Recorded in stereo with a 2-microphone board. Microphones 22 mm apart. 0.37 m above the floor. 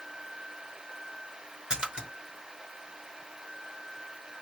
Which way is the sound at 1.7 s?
40° right (ahead or behind).